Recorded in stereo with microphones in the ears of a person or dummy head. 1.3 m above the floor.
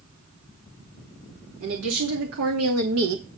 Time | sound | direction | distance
1.6 | a woman speaking | 80° right | 2 m